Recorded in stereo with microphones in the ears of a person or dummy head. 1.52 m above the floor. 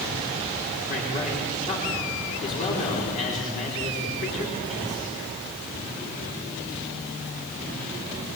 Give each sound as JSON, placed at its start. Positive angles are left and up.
{"t": 0.9, "sound": "a man speaking", "side_deg": 40, "distance_m": 5.0}